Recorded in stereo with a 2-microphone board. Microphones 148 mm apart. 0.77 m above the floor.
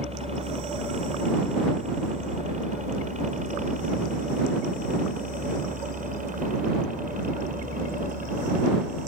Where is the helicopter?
45° right (ahead or behind); by 9.1 s 70° right (ahead or behind).